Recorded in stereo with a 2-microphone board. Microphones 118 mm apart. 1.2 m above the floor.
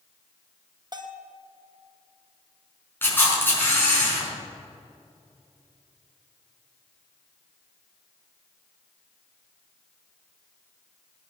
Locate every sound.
0.9 s a bell: 35° right (ahead or behind), 1.3 m
3.0 s a camera shutter: 15° left (ahead or behind), 5 m